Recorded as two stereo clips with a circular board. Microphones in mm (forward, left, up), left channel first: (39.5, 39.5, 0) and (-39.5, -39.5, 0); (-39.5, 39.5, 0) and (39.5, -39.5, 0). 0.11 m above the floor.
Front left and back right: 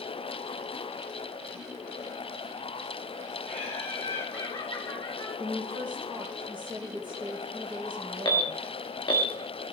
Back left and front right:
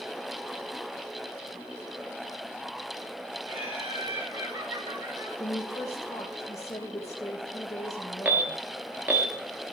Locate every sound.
3.5 s laughter: 30° right, 5 m; by 5.3 s 5° right, 4 m
5.4 s a woman speaking: 170° right, 2.5 m
8.2 s an alarm: 20° left, 1.1 m